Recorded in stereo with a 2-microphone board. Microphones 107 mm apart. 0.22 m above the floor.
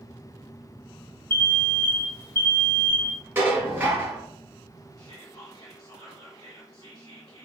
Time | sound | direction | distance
1.3 | an alarm | 50° right (ahead or behind) | 1.0 m
3.4 | dishes clattering | 20° right (ahead or behind) | 1.2 m
5.0 | whispering | 45° left (ahead or behind) | 1.5 m